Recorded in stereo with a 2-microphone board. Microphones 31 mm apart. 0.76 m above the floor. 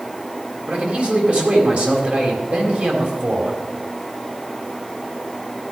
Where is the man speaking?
50° right (ahead or behind), 3.5 m.